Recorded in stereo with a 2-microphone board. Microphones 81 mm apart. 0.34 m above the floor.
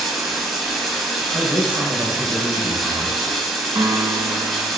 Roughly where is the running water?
Centre.